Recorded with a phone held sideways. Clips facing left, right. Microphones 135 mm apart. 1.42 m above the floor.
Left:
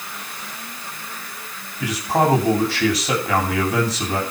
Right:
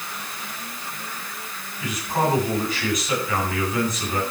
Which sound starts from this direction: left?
A man speaking, at 1.8 s.